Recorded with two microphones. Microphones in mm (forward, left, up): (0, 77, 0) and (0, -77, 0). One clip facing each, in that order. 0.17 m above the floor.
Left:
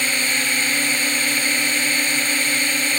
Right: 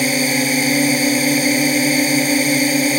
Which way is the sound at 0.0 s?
40° right (ahead or behind).